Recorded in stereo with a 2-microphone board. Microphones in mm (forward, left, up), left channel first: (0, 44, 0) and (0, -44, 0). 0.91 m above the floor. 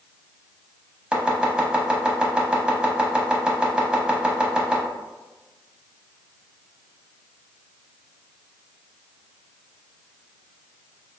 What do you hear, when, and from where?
1.1 s chopping: 10° right (ahead or behind), 0.8 m